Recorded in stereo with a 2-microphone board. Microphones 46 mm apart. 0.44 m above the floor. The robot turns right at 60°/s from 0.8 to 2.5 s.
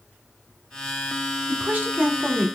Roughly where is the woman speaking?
Right.